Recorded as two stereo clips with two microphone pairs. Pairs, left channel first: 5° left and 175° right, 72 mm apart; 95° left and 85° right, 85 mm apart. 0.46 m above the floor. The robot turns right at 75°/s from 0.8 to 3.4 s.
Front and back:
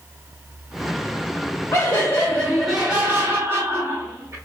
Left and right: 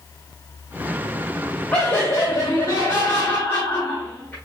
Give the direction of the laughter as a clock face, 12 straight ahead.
11 o'clock.